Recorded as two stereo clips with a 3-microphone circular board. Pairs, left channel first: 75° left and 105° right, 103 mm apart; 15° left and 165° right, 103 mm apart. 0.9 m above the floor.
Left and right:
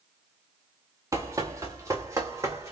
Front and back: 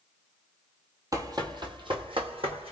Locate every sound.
1.1 s running footsteps: 140° right, 1.1 m; by 2.7 s 165° right, 2.0 m